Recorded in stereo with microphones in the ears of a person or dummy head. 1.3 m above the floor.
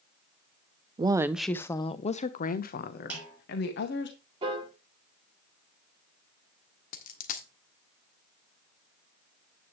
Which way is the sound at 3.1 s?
5° right (ahead or behind).